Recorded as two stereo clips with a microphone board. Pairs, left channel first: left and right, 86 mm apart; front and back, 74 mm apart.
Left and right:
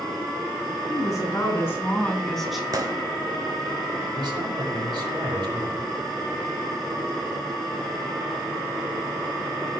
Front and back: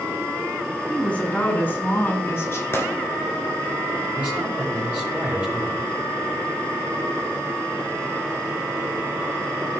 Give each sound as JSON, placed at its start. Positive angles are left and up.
{"t": 0.9, "sound": "a woman speaking", "azimuth_deg": 70, "distance_m": 2.5}
{"t": 2.7, "sound": "a gunshot", "azimuth_deg": -50, "distance_m": 1.2}
{"t": 4.2, "sound": "a man speaking", "azimuth_deg": -110, "distance_m": 5.0}